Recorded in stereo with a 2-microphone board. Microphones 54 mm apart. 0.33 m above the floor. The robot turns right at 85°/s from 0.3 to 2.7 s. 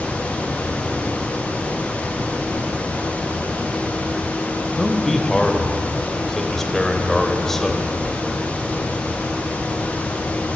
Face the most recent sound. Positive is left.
turn(degrees=10)  # may be behind; listen again after turning